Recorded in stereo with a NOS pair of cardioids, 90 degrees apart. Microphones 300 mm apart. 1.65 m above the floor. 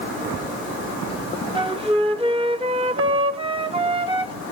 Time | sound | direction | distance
1.6 | a flute | 20° right | 0.6 m